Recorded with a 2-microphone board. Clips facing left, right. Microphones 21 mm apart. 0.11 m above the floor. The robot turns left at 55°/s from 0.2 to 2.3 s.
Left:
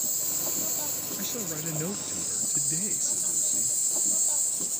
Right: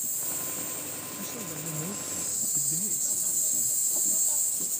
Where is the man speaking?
125° left; by 3.8 s 60° left.